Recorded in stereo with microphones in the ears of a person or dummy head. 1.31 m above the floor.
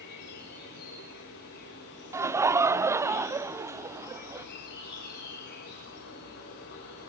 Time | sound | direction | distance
0.0 | an insect | 60° left (ahead or behind) | 5.5 m
2.1 | laughter | 10° right (ahead or behind) | 0.7 m